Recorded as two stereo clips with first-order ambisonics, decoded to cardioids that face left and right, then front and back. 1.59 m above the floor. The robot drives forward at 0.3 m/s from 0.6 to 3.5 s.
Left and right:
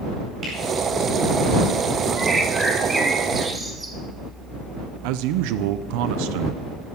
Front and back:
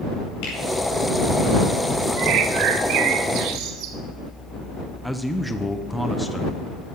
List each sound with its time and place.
0.4 s a finger snap: 25° right, 9.5 m
2.2 s a bird: 165° right, 1.5 m; by 4.0 s 170° right, 1.8 m
5.0 s a man speaking: 90° right, 0.8 m